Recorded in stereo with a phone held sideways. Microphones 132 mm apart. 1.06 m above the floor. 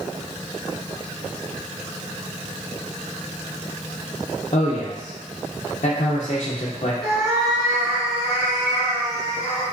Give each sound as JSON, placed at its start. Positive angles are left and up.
{"t": 4.5, "sound": "a man speaking", "side_deg": 55, "distance_m": 0.6}
{"t": 7.0, "sound": "a cat meowing", "side_deg": 0, "distance_m": 1.6}